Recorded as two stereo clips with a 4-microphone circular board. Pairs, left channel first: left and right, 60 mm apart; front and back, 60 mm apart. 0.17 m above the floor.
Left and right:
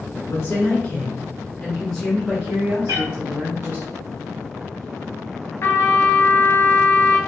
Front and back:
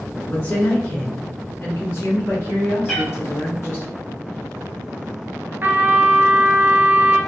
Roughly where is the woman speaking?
Ahead left.